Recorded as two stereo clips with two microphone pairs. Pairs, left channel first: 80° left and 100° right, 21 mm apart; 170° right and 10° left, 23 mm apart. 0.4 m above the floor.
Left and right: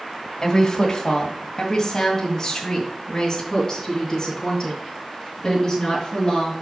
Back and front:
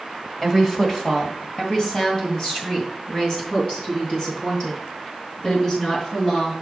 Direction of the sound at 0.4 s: 125° left.